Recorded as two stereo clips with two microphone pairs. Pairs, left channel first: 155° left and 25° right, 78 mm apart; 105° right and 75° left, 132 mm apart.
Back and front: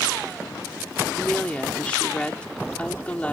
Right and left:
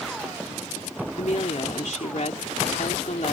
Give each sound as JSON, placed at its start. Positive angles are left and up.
{"t": 1.2, "sound": "a woman speaking", "azimuth_deg": -130}